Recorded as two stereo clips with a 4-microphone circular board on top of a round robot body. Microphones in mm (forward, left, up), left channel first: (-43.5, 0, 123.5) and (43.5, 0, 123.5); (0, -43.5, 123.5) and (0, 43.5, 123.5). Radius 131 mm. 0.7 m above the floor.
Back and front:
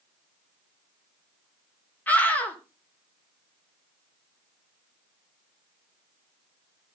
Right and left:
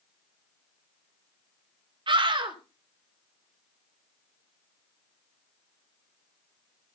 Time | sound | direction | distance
2.1 | a scream | 110° left | 3.5 m